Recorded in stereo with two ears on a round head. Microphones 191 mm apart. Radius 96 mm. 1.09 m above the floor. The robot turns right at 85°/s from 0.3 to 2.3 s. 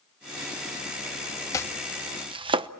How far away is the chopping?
About 0.8 m.